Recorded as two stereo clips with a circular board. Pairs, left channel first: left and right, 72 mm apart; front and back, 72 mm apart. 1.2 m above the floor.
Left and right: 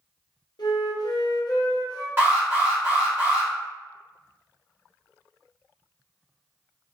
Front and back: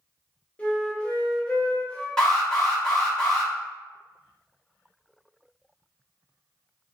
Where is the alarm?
70° right, 1.2 m.